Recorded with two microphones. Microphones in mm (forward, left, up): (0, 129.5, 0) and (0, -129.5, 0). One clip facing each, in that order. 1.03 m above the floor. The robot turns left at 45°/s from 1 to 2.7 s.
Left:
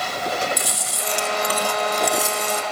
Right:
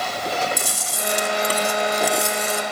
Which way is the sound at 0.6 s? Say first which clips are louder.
Right 1 dB; 130° right.